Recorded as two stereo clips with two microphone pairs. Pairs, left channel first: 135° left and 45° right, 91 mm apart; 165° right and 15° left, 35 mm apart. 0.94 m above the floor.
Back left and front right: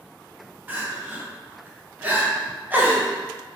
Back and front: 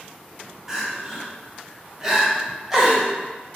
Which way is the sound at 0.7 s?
30° right.